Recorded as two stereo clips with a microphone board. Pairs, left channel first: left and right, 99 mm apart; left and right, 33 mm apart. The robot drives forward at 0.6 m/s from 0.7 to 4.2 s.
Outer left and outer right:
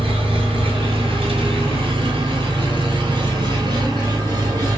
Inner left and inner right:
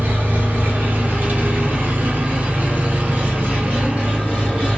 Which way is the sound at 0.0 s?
65° right (ahead or behind).